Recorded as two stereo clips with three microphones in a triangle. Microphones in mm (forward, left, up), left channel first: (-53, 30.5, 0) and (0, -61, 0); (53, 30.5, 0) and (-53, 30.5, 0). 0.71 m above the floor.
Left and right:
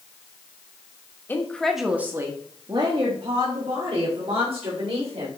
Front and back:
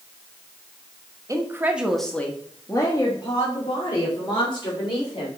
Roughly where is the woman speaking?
Behind.